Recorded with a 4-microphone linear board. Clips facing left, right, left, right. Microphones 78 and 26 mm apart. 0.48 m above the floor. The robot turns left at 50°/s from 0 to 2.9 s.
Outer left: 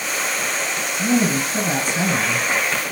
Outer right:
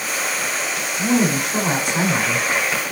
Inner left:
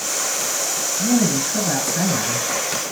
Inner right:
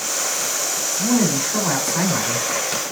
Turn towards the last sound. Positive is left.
turn(degrees=-145)